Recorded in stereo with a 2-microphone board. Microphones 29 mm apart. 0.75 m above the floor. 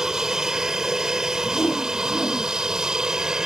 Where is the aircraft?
15° right (ahead or behind); by 3.5 s 20° right (ahead or behind).